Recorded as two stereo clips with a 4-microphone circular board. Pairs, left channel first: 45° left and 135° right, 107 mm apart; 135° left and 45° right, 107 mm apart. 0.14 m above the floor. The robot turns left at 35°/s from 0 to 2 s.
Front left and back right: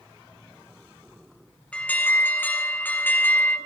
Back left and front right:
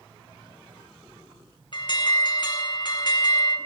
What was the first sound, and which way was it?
An alarm, 120° left.